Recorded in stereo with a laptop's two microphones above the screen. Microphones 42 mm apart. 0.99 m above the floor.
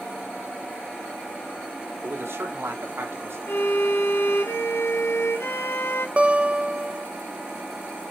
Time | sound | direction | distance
2.0 | a man speaking | 75° right (ahead or behind) | 2.5 m
3.5 | a violin | 70° left (ahead or behind) | 1.3 m
6.2 | a guitar | 30° right (ahead or behind) | 0.8 m